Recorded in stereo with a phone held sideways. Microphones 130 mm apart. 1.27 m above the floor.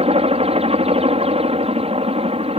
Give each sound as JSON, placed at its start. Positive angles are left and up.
{"t": 0.0, "sound": "a helicopter", "side_deg": -50}